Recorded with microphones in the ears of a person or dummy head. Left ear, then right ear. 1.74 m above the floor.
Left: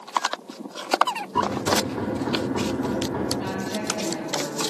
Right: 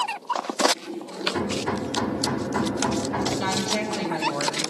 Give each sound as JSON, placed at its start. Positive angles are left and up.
{"t": 1.3, "sound": "hammering", "side_deg": -70, "distance_m": 4.5}
{"t": 3.4, "sound": "a woman speaking", "side_deg": -60, "distance_m": 2.0}